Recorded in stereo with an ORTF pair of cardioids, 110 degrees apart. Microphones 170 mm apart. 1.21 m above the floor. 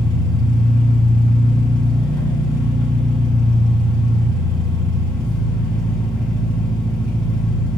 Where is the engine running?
25° left, 6 m.